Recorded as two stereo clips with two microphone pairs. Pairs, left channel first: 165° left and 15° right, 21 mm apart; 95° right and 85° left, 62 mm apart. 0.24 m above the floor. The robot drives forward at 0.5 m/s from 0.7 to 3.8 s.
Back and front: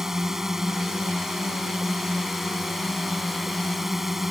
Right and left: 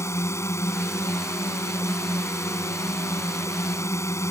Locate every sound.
0.0 s a drone: 80° right; by 4.3 s 90° right